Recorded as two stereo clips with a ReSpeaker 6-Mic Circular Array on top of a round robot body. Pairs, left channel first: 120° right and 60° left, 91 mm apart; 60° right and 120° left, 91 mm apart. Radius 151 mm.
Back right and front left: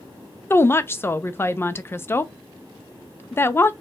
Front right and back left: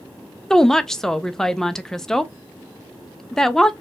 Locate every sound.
0.5 s a woman speaking: 140° right, 0.6 m